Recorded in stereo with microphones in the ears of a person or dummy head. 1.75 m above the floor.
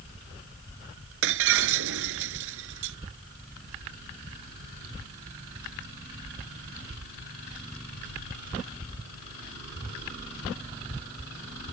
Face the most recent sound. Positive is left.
turn(degrees=-70)  # may be behind; listen again after turning